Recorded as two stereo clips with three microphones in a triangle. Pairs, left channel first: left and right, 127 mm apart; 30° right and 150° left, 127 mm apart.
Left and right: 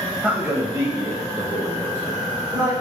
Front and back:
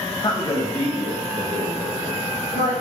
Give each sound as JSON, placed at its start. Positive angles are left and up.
{"t": 0.2, "sound": "a man speaking", "azimuth_deg": -15, "distance_m": 1.1}